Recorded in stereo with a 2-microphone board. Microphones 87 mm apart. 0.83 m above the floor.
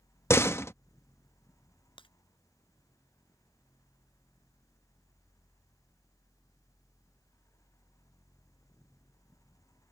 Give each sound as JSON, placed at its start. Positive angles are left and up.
{"t": 0.3, "sound": "a door slam", "side_deg": 30}
{"t": 2.0, "sound": "breaking glass", "side_deg": 85}